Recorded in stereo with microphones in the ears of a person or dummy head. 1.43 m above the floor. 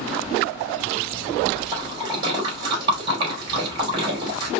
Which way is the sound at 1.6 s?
25° right (ahead or behind).